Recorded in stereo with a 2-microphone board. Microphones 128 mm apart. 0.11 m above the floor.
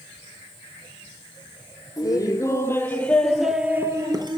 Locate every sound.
2.0 s laughter: 30° left (ahead or behind), 3.5 m; by 4.4 s 40° right (ahead or behind), 1.9 m